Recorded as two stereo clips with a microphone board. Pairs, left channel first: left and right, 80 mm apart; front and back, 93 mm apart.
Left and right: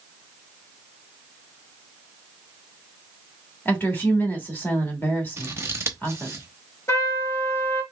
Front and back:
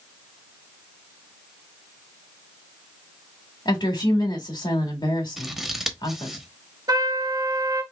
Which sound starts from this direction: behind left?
A trumpet, at 6.9 s.